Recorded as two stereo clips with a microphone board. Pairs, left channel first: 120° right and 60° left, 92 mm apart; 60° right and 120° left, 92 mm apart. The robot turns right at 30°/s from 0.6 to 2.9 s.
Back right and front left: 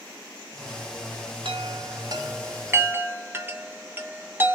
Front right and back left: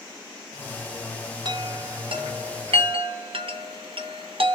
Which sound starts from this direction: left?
A chime, at 1.4 s.